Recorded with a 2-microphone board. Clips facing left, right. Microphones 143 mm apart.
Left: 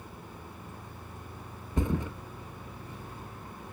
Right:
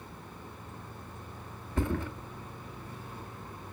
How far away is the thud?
About 1.5 m.